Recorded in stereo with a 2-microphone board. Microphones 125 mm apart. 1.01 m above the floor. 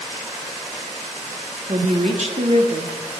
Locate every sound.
1.7 s a woman speaking: 55° right (ahead or behind), 1.4 m